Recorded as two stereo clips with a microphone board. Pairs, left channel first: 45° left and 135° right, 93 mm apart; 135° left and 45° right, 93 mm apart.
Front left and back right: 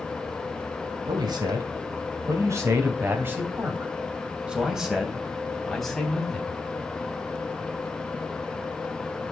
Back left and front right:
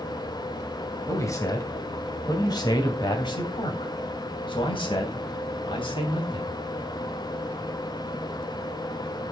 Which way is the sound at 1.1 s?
170° right.